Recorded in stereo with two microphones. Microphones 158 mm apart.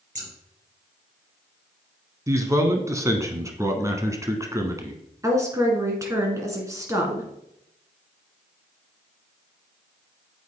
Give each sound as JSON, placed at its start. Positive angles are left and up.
{"t": 0.1, "sound": "scissors", "side_deg": -55, "distance_m": 2.5}
{"t": 2.3, "sound": "a man speaking", "side_deg": -20, "distance_m": 1.1}
{"t": 5.2, "sound": "a woman speaking", "side_deg": -20, "distance_m": 1.8}